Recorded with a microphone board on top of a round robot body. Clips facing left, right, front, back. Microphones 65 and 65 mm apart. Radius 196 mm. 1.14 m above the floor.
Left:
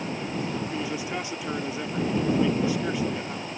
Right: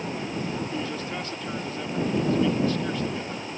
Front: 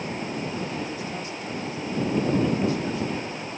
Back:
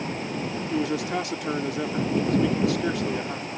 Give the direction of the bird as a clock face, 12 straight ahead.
No bird in this recording.